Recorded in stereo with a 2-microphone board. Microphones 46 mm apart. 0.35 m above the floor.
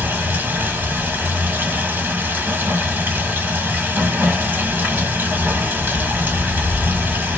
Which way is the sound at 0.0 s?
50° right (ahead or behind).